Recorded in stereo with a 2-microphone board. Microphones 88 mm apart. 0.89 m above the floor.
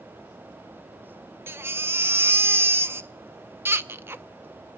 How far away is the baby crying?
About 0.5 m.